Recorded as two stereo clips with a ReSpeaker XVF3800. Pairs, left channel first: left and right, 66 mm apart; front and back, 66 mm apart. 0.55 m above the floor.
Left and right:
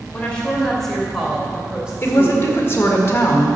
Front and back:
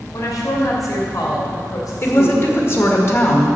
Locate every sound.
0.1 s a woman speaking: 15° left, 2.5 m; by 3.0 s 25° right, 3.5 m
2.0 s a woman speaking: 40° left, 1.7 m